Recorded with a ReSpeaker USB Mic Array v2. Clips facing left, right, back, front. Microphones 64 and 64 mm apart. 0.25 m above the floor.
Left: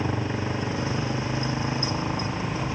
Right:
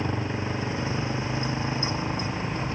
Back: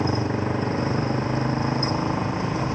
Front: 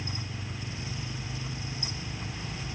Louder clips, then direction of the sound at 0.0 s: Left 1 dB, back 16 dB; 175° left.